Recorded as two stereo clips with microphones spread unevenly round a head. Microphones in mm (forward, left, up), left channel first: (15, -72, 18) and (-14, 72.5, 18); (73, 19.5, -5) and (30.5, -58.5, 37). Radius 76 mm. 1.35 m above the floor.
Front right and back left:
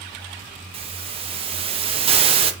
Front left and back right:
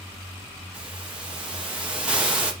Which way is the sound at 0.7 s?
155° left.